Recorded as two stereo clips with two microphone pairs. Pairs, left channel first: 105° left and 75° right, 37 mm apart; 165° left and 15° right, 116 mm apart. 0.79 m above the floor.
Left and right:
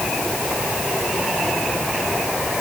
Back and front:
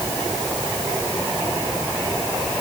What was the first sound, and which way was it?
Only background noise.